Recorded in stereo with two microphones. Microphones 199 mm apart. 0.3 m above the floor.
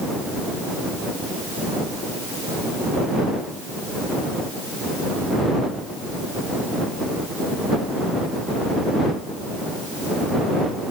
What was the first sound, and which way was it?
Only background noise.